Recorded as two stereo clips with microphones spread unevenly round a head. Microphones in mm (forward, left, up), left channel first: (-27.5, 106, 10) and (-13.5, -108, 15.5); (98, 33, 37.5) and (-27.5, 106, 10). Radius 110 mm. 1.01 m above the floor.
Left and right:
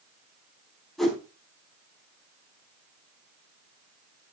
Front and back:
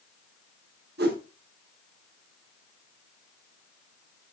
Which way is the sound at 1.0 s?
Straight behind.